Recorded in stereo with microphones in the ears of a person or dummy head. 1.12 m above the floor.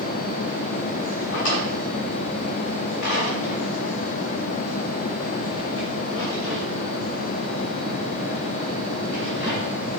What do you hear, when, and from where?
1.3 s a drawer: 80° left, 2.5 m